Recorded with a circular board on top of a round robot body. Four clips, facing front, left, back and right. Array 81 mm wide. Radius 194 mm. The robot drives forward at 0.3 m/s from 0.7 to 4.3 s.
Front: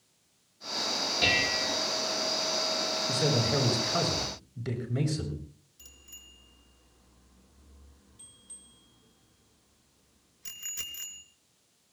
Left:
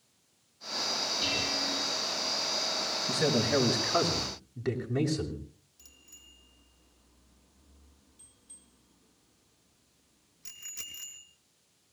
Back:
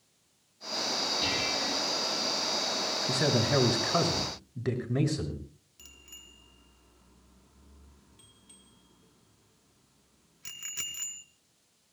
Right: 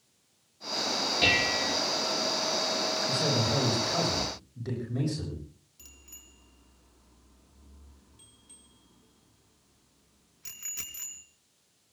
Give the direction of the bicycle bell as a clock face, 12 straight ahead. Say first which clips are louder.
Right 3 dB, back 5 dB; 5 o'clock.